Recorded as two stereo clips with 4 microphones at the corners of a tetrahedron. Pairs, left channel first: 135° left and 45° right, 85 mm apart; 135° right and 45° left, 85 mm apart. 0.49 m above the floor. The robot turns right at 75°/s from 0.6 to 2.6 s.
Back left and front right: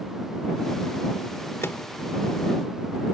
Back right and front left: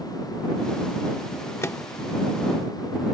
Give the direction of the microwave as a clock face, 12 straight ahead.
6 o'clock.